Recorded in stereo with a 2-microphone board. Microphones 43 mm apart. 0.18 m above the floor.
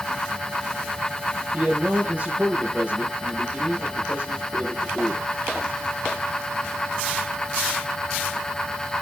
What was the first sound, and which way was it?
A man speaking, 30° right (ahead or behind).